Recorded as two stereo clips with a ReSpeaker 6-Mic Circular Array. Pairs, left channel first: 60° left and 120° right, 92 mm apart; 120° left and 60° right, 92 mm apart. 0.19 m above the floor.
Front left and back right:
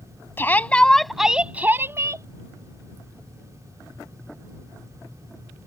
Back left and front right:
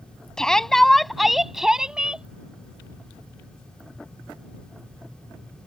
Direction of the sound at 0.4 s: 50° left.